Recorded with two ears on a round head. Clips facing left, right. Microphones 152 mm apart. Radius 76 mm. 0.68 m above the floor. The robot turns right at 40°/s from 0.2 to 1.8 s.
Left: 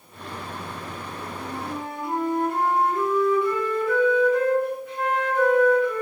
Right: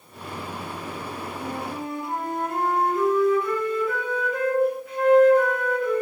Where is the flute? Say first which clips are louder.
Even; 15° left (ahead or behind), 1.2 m; by 6.0 s 5° right (ahead or behind), 1.2 m.